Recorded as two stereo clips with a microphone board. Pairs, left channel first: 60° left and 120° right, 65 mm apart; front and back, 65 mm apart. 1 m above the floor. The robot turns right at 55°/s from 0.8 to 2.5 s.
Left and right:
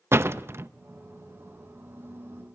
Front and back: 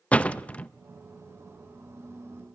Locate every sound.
0.1 s a door slam: 70° right, 0.6 m